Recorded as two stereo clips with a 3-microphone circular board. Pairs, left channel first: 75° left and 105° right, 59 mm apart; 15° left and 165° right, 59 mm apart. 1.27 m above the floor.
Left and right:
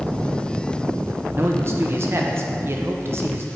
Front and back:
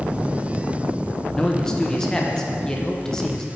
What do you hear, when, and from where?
1.3 s a man speaking: 65° right, 0.9 m